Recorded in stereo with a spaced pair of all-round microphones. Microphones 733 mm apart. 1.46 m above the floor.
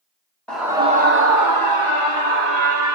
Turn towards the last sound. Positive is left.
turn(degrees=-70)  # may be behind; listen again after turning